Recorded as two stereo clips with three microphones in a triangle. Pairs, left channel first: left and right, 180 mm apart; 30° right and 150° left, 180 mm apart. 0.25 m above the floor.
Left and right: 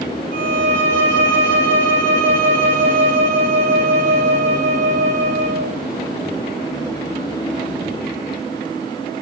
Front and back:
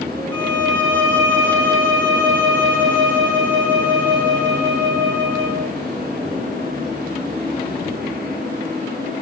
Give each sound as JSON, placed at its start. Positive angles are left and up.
{"t": 0.3, "sound": "a violin", "azimuth_deg": 45, "distance_m": 3.0}